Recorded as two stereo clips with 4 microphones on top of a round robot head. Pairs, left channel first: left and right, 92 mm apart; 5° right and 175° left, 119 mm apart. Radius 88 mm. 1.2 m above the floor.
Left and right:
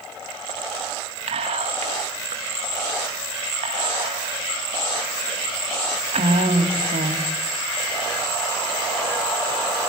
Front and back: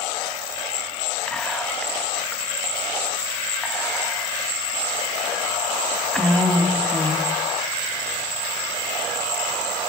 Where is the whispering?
90° right, 2 m.